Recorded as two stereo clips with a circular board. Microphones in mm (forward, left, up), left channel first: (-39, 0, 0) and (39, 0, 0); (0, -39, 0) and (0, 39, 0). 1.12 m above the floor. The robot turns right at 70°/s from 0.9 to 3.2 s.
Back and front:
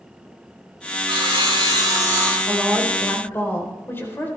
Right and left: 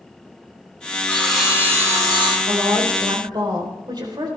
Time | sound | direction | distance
1.1 | sawing | 20° right | 7 m
2.5 | a woman speaking | 65° left | 3.5 m